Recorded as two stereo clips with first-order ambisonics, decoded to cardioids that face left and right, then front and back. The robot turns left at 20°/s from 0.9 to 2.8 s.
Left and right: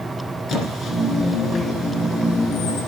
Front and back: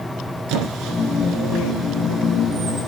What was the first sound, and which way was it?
A squeak, 150° left.